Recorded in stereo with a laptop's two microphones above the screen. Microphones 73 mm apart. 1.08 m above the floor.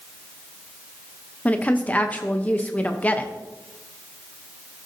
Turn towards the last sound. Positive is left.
turn(degrees=20)  # may be behind; listen again after turning